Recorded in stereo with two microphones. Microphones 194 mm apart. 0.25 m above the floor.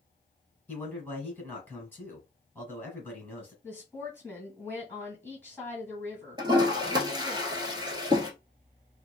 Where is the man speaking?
10° left (ahead or behind), 1.5 m.